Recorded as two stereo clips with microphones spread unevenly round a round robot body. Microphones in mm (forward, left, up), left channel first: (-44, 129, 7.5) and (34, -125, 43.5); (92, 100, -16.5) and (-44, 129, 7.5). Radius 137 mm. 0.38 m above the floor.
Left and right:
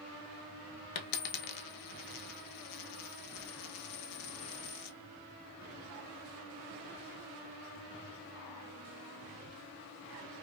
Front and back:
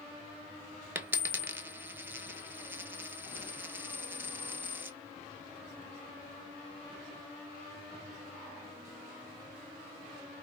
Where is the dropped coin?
95° left, 0.6 m.